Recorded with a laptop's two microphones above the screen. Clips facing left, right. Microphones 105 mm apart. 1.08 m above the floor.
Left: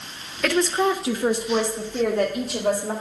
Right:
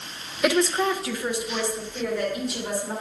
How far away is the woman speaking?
About 0.6 m.